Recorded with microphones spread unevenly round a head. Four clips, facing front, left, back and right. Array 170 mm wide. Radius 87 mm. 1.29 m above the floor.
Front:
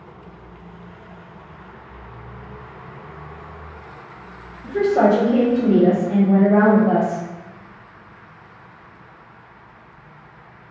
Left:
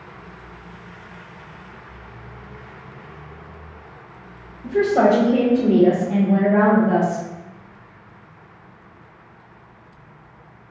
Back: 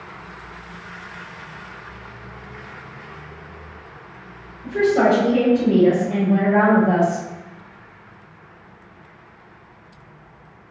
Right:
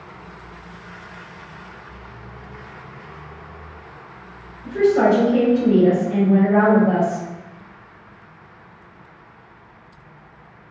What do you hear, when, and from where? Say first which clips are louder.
4.6 s a woman speaking: even, front 1 dB; 70° left, 1.3 m; by 7.2 s 25° right, 0.8 m